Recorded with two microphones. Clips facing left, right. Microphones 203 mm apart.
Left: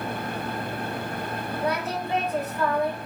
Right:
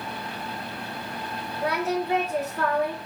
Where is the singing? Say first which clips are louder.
Right 4 dB; 70° right (ahead or behind), 3.5 m.